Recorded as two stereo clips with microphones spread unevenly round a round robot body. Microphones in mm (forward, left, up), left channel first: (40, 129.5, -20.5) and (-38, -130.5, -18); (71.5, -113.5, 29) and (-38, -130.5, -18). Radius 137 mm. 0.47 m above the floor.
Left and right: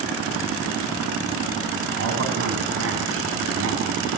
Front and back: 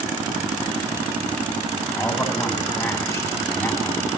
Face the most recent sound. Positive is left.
turn(degrees=-65)